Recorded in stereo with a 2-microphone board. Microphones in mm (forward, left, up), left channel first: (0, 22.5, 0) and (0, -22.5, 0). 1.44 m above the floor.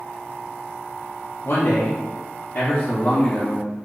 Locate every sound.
1.4 s a man speaking: 60° left (ahead or behind), 0.7 m; by 3.7 s 25° left (ahead or behind), 1.2 m